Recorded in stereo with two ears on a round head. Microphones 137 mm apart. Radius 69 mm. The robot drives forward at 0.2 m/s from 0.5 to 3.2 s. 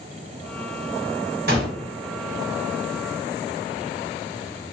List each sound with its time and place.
1.5 s a gunshot: 75° right (ahead or behind), 1.2 m